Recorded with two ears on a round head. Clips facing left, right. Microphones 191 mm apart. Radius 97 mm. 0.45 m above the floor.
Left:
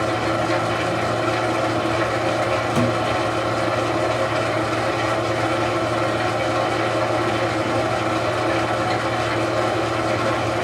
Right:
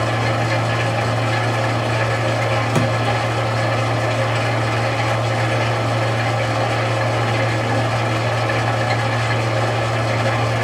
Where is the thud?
60° right (ahead or behind), 0.7 m.